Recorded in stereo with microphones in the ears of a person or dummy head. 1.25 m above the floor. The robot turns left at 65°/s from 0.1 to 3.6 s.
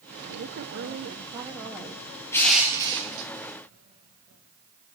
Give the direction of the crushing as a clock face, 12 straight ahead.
12 o'clock.